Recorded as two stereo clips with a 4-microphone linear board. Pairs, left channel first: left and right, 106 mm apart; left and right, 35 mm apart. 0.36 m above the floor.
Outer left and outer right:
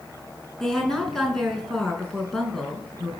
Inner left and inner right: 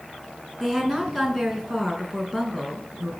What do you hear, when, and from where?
0.6 s a woman speaking: 5° left (ahead or behind), 4.5 m